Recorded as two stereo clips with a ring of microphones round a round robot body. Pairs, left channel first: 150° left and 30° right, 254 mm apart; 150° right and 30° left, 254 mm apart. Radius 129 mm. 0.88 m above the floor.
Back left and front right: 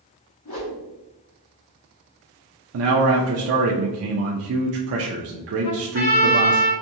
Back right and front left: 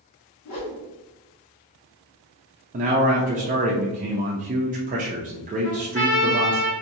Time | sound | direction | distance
0.5 | a whoosh | straight behind | 1.4 m
2.7 | a man speaking | 25° right | 0.6 m
5.6 | a trumpet | 165° left | 1.7 m